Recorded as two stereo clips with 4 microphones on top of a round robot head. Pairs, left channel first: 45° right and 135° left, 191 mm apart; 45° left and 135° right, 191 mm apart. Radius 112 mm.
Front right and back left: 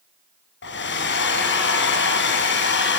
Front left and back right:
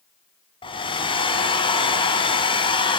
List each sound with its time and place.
0.6 s a hair dryer: 20° right, 3 m